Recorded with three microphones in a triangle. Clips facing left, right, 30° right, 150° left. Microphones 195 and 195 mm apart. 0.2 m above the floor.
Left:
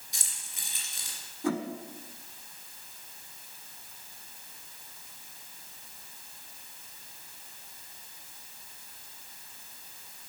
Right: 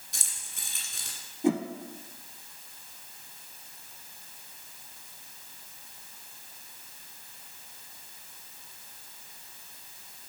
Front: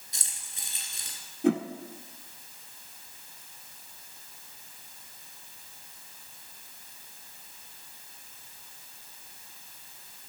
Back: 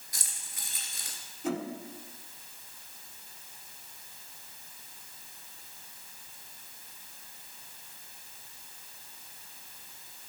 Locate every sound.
0.1 s keys jangling: 95° right, 1.8 m
1.4 s a whoosh: 25° right, 0.7 m